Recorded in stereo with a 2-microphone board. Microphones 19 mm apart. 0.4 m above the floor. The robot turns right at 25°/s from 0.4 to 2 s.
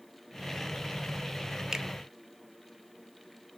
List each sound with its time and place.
1.7 s a finger snap: 35° right (ahead or behind), 0.7 m